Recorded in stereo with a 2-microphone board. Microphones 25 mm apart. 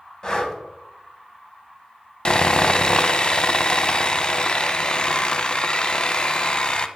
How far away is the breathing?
About 1.2 m.